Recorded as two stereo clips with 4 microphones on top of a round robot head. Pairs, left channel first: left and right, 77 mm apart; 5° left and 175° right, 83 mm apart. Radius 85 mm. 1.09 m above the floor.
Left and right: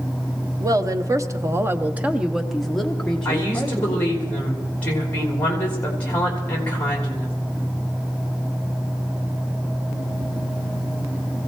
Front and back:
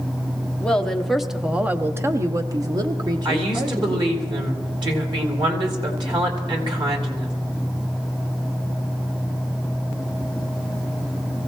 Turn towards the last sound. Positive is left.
turn(degrees=160)